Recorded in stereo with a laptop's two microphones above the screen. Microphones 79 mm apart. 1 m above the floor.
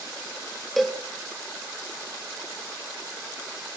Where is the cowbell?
Centre (ahead or behind), 1.4 m.